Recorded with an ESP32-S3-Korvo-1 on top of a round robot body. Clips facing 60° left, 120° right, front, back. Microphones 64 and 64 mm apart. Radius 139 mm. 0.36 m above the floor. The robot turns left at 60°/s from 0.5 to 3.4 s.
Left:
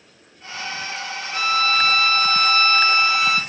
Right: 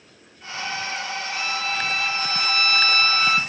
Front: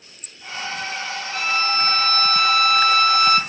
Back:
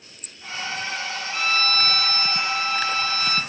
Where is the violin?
90° left, 0.8 m; by 3.4 s 30° right, 0.8 m.